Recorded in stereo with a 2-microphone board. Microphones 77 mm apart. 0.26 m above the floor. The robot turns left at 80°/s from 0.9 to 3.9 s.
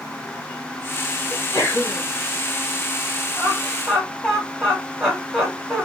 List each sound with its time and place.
1.3 s a sneeze: 90° left, 2 m; by 2.0 s 30° left, 2 m
3.4 s laughter: 15° left (ahead or behind), 1.1 m; by 5.8 s 10° right (ahead or behind), 1.1 m